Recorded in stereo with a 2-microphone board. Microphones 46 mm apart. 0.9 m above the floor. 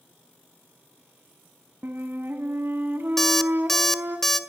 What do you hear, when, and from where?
1.8 s a flute: 50° right (ahead or behind), 1.9 m
3.2 s an alarm clock: 10° left (ahead or behind), 1.1 m